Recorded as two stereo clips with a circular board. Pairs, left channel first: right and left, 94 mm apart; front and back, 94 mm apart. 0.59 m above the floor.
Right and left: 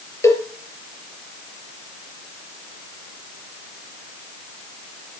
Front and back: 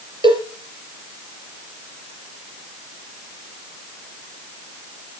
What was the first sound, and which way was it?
A cowbell, 150° right.